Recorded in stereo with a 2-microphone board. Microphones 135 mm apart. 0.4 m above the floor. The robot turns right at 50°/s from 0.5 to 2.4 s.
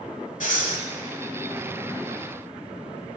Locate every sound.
0.4 s breathing: 70° left (ahead or behind), 1.3 m